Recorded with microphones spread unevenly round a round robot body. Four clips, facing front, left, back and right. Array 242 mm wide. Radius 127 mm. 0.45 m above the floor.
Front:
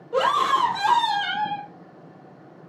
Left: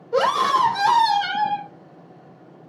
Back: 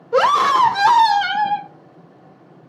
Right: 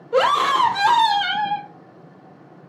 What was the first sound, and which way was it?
A scream, 170° right.